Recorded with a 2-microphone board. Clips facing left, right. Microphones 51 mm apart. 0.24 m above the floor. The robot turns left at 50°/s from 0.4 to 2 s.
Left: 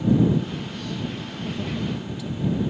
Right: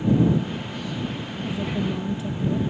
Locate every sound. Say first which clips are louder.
1.4 s a woman speaking: right 2 dB; 5° right (ahead or behind); by 2.6 s 30° right (ahead or behind)